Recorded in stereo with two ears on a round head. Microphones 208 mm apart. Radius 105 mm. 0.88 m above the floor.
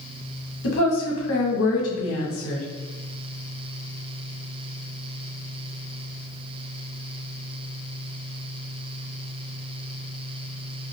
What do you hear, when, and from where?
0.6 s a woman speaking: 60° left (ahead or behind), 0.8 m